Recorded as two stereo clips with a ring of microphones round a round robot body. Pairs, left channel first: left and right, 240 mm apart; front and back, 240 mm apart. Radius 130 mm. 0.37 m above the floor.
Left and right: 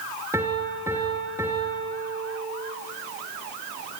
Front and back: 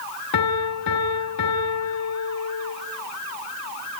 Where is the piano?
10° right, 3.5 m.